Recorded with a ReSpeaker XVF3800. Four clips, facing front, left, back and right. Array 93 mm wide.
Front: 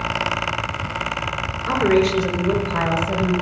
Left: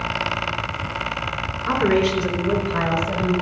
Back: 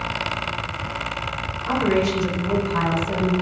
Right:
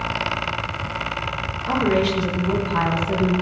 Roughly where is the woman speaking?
Left.